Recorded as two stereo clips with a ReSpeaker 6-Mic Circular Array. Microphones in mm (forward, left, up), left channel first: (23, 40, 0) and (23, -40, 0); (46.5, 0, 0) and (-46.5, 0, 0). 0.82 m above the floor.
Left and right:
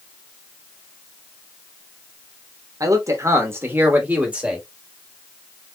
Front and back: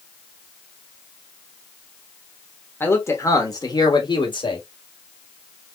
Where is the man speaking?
60° right, 1.3 m; by 4.6 s 15° right, 1.6 m.